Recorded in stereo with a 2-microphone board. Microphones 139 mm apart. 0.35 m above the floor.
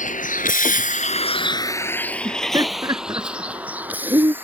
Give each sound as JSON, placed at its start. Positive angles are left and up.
{"t": 0.0, "sound": "a vehicle", "side_deg": 70}
{"t": 2.2, "sound": "laughter", "side_deg": -25}